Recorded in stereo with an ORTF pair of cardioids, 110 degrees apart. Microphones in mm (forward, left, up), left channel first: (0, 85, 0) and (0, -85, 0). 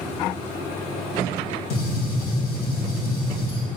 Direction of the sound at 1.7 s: 70° left.